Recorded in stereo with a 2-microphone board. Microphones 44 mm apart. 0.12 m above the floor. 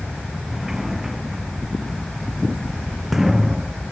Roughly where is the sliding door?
Centre.